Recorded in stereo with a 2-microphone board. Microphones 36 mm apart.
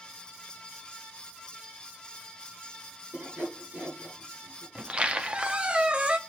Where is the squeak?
30° right (ahead or behind), 0.6 m.